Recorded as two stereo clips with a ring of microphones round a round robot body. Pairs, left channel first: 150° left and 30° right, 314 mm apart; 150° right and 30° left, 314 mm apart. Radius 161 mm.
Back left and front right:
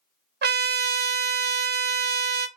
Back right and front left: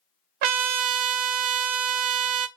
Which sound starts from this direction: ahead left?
A trumpet, at 0.4 s.